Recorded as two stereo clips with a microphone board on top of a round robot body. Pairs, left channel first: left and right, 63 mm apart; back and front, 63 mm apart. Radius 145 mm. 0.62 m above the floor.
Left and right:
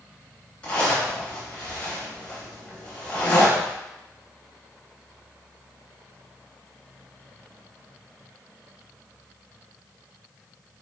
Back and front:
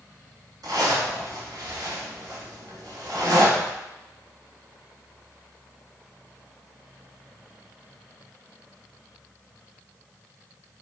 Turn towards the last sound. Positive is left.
turn(degrees=25)